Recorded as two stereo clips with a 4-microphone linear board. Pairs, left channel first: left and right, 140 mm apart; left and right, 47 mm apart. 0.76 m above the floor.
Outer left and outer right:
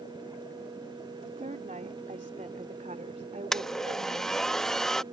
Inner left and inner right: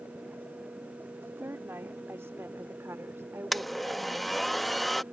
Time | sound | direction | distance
1.2 | a woman speaking | 65° right (ahead or behind) | ?
3.5 | a blender | 5° left (ahead or behind) | ?